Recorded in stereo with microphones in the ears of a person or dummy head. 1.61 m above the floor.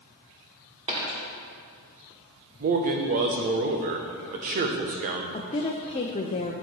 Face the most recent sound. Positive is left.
turn(degrees=35)  # may be behind; listen again after turning